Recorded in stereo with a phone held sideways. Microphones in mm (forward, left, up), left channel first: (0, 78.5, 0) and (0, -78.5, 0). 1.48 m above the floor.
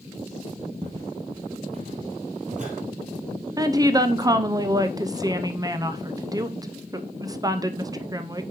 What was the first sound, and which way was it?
Footsteps, 30° right (ahead or behind).